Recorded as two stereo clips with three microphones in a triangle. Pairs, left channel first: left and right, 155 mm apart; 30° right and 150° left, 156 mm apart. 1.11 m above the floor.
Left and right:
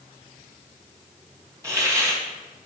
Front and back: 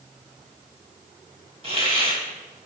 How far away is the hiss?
About 2.5 m.